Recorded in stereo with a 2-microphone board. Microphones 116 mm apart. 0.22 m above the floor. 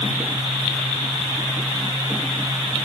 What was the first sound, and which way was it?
Only background noise.